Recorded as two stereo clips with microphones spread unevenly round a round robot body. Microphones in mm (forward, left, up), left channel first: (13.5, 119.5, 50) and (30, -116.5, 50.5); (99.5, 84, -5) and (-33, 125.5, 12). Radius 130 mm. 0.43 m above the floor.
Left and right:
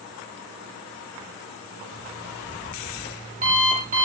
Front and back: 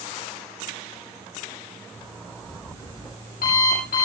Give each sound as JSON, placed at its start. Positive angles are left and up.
{"t": 1.9, "sound": "an alarm clock", "azimuth_deg": -30, "distance_m": 9.0}